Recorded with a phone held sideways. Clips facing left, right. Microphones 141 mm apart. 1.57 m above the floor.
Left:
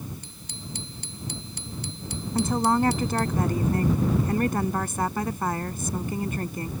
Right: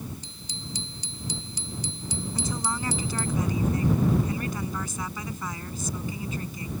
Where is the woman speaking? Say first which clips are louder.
Left 11 dB; 55° left (ahead or behind).